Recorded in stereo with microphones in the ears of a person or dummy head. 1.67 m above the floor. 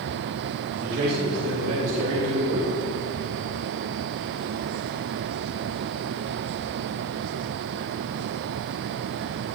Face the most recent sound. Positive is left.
turn(degrees=-75)  # may be behind; listen again after turning